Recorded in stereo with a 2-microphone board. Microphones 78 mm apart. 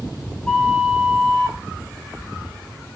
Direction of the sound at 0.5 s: 10° left (ahead or behind).